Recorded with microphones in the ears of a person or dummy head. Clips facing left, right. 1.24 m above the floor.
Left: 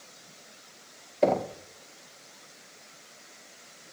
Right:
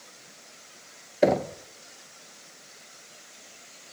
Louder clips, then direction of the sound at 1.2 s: Right 2 dB; 15° right (ahead or behind).